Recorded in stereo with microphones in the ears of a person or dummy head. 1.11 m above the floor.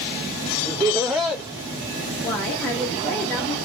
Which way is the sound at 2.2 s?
10° left (ahead or behind).